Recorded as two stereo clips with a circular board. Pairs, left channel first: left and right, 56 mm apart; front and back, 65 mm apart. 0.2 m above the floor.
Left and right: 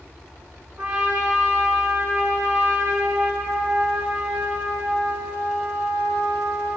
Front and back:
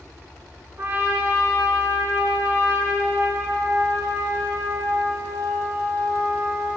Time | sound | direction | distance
0.8 | a trumpet | 155° right | 1.8 m